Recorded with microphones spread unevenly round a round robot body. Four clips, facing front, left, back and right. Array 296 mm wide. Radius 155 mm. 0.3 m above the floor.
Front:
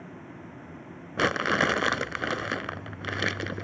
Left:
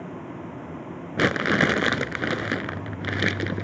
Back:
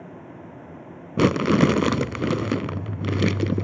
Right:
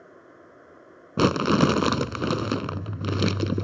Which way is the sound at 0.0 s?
85° left.